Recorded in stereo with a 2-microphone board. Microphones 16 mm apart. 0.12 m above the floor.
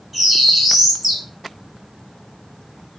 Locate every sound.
0.1 s a bird: 10° right (ahead or behind), 1.8 m